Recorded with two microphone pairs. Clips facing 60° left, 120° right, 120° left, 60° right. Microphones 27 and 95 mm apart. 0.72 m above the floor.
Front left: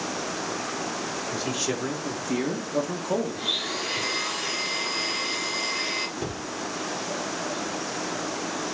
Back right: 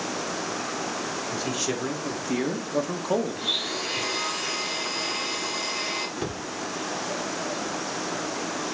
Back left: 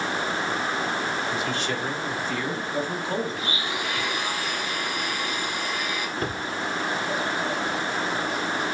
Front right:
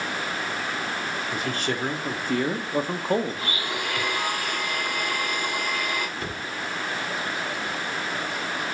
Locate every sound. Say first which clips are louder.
1.3 s a man speaking: front left 1 dB, back left 1 dB; 30° right, 1.9 m; by 3.5 s 75° right, 1.1 m
3.4 s a blender: even, back left 1 dB; 35° right, 3.5 m
6.2 s a cupboard door: back right 1 dB, back left 4 dB; 165° left, 1.6 m